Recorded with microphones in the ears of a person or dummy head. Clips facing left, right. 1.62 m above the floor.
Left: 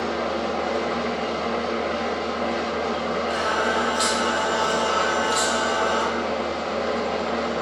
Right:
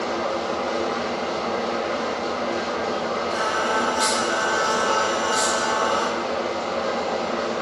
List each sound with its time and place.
0.0 s an engine running: 30° left (ahead or behind), 1.1 m
3.3 s singing: 25° left (ahead or behind), 0.9 m